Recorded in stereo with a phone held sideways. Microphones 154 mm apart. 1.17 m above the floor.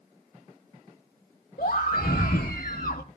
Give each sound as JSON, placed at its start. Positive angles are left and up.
{"t": 1.6, "sound": "a scream", "side_deg": 65, "distance_m": 1.7}